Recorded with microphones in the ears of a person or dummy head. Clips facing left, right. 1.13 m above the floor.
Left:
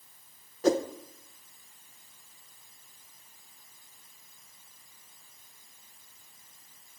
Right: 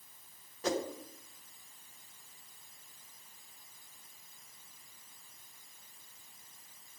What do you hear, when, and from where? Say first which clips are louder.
0.6 s a whoosh: left 9 dB; 45° left (ahead or behind), 0.7 m